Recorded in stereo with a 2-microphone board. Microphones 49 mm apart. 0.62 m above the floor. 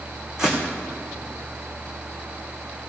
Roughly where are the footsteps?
Centre.